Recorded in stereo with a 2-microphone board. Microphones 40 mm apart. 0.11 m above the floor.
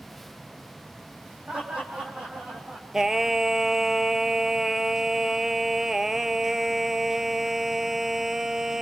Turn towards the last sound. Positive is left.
turn(degrees=-10)  # may be behind; listen again after turning